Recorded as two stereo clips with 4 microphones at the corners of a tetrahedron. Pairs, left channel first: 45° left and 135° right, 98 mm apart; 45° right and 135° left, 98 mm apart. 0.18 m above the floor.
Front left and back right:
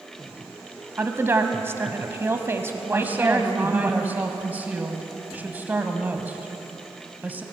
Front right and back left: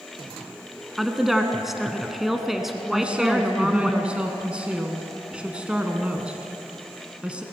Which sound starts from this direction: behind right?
A woman speaking, at 1.0 s.